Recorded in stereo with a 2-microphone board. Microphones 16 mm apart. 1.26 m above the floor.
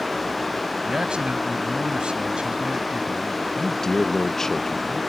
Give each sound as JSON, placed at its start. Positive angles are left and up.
{"t": 0.8, "sound": "a man speaking", "side_deg": -90}
{"t": 3.6, "sound": "a man speaking", "side_deg": 30}